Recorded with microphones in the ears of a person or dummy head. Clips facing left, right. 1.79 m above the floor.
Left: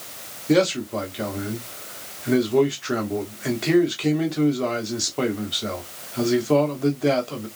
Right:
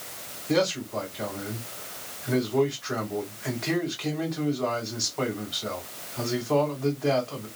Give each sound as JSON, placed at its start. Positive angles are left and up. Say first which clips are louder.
{"t": 0.5, "sound": "a man speaking", "louder": "left 6 dB", "side_deg": 45, "distance_m": 1.2}